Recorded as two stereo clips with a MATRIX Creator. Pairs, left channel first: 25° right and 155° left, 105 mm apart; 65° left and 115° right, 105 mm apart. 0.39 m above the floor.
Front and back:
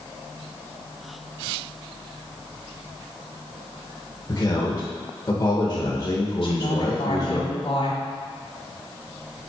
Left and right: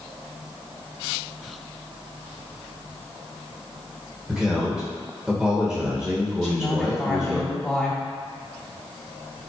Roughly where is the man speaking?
Ahead right.